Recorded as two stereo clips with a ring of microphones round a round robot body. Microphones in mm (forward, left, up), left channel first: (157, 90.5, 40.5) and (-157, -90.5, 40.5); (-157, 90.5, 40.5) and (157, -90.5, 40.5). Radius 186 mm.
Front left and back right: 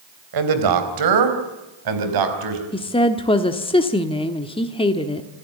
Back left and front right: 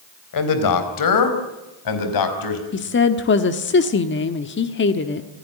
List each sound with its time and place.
0.3 s a man speaking: 175° right, 3.5 m; by 2.6 s straight behind, 5 m
2.7 s a woman speaking: 100° left, 1.2 m